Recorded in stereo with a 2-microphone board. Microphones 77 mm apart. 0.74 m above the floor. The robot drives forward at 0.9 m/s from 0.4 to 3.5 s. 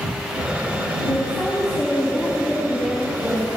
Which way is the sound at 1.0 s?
10° left (ahead or behind).